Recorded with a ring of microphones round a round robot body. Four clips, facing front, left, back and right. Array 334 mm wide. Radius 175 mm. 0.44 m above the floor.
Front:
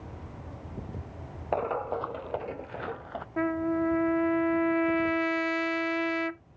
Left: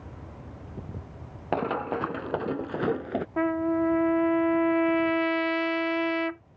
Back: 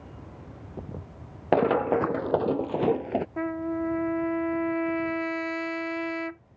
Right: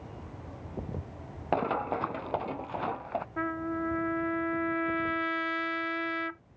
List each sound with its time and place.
1.5 s running footsteps: 175° left; by 3.3 s 145° left
3.4 s a trumpet: 80° left